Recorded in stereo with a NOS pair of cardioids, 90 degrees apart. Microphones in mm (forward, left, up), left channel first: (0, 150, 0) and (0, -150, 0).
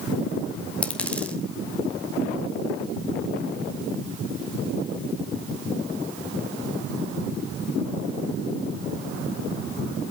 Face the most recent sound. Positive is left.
turn(degrees=5)